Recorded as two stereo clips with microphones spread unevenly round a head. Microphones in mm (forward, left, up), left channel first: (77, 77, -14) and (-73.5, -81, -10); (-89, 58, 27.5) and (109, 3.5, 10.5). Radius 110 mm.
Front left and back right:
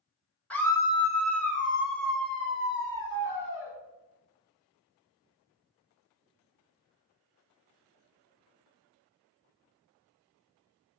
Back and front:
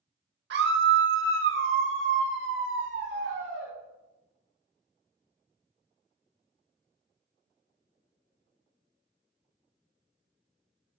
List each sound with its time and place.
0.5 s a scream: 35° right, 1.2 m; by 3.7 s 15° left, 3 m